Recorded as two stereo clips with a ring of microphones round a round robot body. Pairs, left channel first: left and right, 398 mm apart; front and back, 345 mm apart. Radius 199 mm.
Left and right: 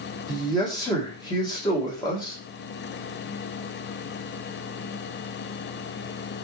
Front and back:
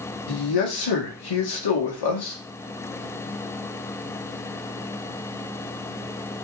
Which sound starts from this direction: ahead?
A man speaking, at 0.3 s.